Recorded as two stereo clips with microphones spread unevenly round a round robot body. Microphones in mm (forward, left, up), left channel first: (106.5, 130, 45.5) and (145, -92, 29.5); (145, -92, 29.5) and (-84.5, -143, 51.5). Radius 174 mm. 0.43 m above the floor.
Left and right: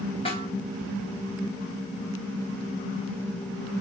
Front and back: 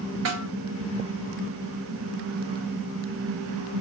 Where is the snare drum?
170° left, 2 m.